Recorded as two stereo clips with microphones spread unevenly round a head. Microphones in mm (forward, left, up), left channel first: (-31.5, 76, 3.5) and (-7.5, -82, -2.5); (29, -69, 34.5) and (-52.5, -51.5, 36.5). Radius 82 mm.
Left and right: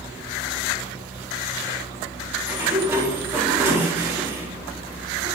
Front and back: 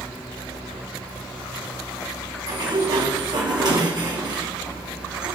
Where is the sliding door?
155° right, 4 m.